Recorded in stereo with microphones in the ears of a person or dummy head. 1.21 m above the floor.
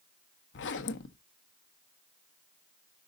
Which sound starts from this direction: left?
A zipper, at 0.5 s.